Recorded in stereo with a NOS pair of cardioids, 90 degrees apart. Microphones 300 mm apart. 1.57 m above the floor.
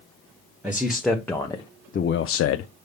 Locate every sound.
0.6 s a man speaking: 5° right, 1.1 m; by 2.7 s 80° left, 0.5 m